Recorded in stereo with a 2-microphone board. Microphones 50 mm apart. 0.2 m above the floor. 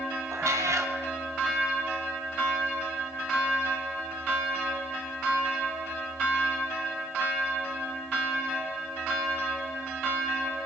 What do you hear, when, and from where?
0.3 s a cat meowing: 80° right, 1.8 m